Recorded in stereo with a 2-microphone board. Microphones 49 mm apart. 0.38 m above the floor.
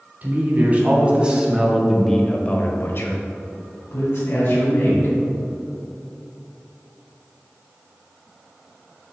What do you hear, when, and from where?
0.2 s a man speaking: 35° right (ahead or behind), 2.5 m; by 5.2 s 65° left (ahead or behind), 3.5 m